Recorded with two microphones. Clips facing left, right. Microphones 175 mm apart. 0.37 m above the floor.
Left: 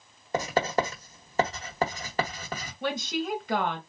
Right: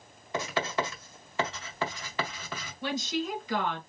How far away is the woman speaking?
About 1.8 m.